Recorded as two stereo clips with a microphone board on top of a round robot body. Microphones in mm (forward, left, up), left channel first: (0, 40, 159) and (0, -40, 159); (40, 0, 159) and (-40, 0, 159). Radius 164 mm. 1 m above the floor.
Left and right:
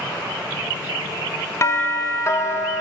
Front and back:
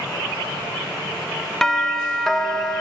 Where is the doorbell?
80° left, 0.7 m.